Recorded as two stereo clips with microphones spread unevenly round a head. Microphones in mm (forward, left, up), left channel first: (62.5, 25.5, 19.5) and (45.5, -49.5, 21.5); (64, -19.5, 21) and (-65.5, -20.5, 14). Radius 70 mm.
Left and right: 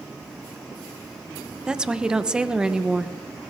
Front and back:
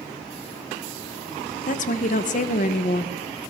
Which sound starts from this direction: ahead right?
A woman speaking, at 1.7 s.